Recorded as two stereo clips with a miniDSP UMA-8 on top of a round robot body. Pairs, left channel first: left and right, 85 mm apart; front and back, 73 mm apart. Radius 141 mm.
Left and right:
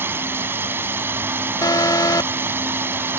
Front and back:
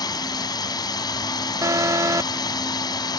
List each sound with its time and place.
0.0 s a drone: 25° right
1.6 s an alarm: 135° left